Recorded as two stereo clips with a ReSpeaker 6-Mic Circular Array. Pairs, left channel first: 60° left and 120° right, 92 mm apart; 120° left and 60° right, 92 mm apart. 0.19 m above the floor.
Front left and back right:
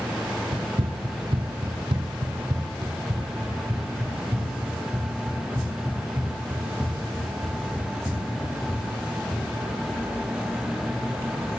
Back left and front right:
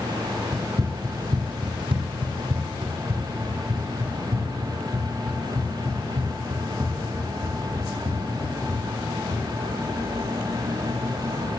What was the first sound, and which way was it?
Running footsteps, 120° right.